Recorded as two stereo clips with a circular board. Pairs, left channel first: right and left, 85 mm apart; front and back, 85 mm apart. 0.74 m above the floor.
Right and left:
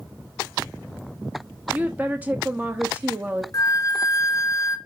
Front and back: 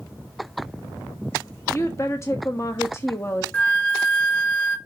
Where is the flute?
75° right, 1.5 m.